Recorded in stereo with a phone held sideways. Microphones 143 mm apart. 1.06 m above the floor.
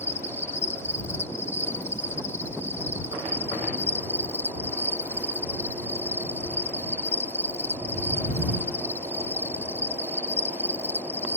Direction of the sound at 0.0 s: 15° left (ahead or behind).